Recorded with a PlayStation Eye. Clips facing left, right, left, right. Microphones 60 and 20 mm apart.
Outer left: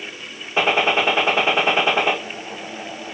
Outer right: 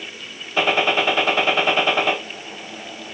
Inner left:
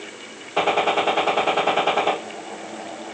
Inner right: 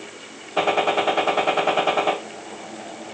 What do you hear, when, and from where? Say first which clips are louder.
0.6 s a gunshot: outer left 1 dB, even; 20° left (ahead or behind), 0.9 m